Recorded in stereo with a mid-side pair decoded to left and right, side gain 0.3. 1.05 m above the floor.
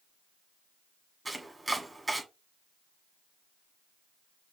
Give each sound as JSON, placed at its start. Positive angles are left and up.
{"t": 1.2, "sound": "chopping", "azimuth_deg": -25, "distance_m": 1.6}